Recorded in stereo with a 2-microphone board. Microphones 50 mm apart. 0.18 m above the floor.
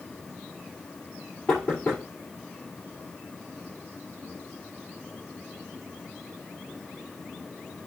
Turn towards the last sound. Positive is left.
turn(degrees=25)  # may be behind; listen again after turning